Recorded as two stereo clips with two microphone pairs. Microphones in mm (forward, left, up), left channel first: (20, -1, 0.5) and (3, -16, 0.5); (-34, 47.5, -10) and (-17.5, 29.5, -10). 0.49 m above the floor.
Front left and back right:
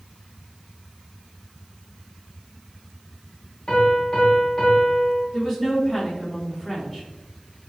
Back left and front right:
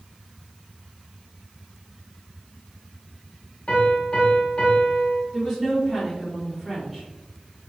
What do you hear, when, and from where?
3.7 s a piano: 90° left, 0.9 m
5.3 s a woman speaking: 40° left, 1.3 m